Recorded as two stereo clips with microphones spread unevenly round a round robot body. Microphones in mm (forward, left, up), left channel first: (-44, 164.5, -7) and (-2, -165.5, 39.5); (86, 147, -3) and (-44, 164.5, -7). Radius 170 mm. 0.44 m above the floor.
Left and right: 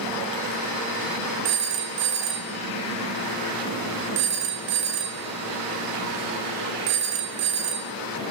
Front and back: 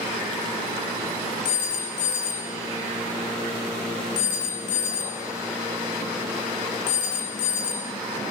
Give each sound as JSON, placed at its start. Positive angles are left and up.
{"t": 1.4, "sound": "a phone ringing", "azimuth_deg": -25, "distance_m": 0.7}